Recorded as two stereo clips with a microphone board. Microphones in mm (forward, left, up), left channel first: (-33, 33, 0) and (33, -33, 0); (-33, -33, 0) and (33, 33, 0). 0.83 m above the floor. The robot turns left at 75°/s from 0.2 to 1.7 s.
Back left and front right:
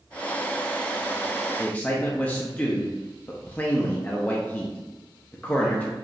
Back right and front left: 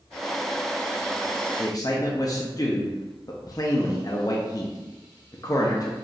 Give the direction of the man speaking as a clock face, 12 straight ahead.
5 o'clock.